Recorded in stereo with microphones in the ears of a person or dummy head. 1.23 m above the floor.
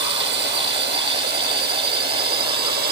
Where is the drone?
60° right (ahead or behind); by 2.9 s 55° right (ahead or behind).